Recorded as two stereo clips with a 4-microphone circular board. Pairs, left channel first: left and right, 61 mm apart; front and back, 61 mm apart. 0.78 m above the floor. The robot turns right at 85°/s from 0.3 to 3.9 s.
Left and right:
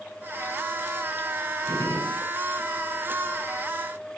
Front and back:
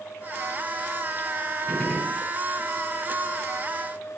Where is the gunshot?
65° left, 8.5 m; by 2.3 s 115° left, 8.5 m.